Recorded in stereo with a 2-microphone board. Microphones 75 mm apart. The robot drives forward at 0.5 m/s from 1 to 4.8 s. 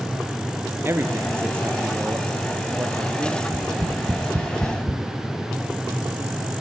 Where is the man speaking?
30° right (ahead or behind), 3.5 m; by 3.3 s 20° right (ahead or behind), 4.5 m.